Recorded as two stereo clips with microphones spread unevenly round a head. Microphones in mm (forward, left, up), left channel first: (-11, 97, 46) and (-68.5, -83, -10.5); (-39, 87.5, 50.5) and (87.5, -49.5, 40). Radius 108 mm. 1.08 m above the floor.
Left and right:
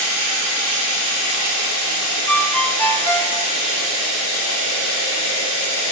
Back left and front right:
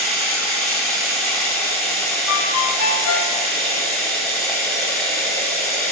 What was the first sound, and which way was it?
Running water, 45° left.